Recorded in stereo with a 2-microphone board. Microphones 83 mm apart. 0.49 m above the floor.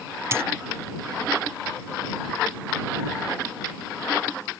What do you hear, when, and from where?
0.3 s a dropped coin: 35° right (ahead or behind)